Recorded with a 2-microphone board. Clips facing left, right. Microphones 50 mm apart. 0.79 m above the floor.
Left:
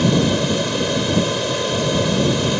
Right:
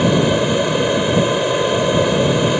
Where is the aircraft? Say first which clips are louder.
Right 2 dB; 20° right (ahead or behind).